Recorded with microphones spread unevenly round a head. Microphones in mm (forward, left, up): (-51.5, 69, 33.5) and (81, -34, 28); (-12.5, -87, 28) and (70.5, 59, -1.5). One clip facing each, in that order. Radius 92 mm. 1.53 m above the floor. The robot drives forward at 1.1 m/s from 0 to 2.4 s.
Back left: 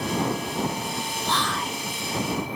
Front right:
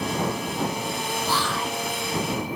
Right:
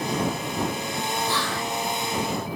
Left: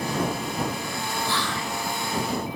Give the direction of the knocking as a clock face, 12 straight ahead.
No knocking in this recording.